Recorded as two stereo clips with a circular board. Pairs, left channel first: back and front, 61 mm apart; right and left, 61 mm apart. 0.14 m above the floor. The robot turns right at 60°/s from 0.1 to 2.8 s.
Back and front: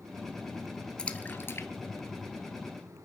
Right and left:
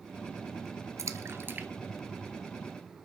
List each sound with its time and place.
1.0 s a splash: 105° left, 1.2 m; by 2.8 s 145° right, 1.2 m